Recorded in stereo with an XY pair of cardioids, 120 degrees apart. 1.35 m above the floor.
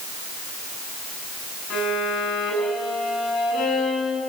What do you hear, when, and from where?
1.7 s a violin: 70° left, 9 m